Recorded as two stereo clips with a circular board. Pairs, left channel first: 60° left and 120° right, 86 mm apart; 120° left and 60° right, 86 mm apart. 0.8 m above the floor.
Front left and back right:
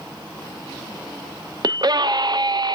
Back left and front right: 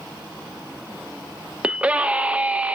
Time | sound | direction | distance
1.6 | a scream | 130° right | 0.6 m